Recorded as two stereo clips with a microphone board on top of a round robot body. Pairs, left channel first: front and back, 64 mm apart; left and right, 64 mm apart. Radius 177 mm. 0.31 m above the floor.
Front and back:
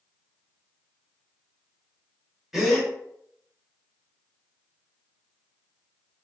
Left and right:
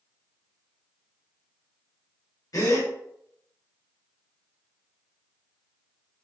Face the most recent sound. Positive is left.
turn(degrees=100)